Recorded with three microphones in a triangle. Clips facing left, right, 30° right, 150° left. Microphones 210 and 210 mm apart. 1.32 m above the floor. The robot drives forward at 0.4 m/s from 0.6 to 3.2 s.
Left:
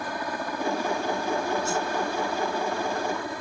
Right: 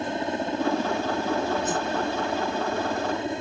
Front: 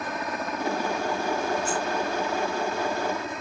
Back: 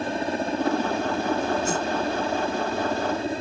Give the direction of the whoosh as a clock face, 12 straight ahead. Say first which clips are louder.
Right 1 dB, back 3 dB; 5 o'clock.